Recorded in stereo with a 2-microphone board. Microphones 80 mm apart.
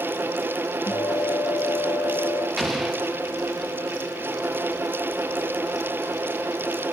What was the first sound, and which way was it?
A guitar, 60° left (ahead or behind).